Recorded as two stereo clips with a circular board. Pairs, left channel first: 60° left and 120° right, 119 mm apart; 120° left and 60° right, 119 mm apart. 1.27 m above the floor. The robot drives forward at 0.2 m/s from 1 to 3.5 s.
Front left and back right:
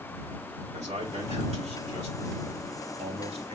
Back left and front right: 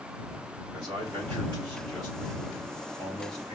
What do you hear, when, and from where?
0.7 s a man speaking: 110° right, 4 m; by 3.5 s 115° right, 4 m